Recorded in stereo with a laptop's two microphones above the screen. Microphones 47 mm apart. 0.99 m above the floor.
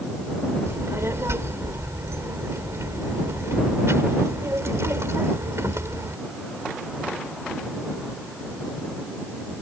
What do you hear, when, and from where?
0.7 s a child speaking: 75° right (ahead or behind)